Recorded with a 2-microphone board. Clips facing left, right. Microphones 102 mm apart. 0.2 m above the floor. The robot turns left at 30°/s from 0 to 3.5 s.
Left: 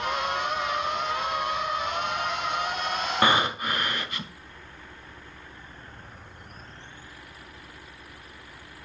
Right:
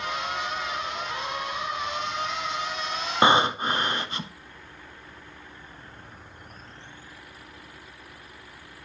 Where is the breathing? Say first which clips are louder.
Right 4 dB; 25° right (ahead or behind), 0.6 m; by 4.3 s 30° right (ahead or behind), 0.6 m.